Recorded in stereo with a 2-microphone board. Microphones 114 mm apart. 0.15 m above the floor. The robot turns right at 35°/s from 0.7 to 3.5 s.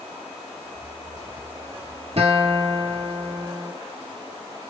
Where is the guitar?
95° right, 1.2 m; by 3.7 s 50° right, 1.2 m.